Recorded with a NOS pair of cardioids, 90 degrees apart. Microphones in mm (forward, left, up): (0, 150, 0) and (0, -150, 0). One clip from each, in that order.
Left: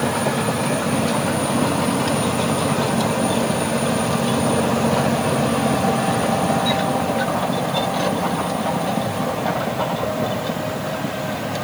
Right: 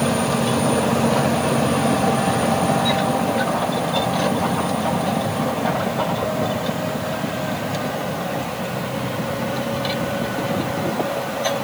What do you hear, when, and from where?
Only background noise.